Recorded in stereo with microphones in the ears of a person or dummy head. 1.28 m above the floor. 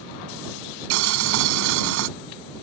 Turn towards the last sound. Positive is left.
turn(degrees=-70)  # may be behind; listen again after turning